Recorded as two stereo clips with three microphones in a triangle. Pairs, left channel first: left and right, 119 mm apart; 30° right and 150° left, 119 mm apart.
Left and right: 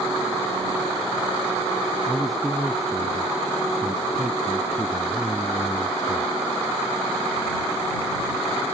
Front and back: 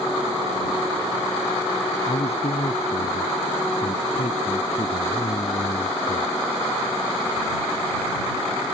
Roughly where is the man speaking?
Ahead.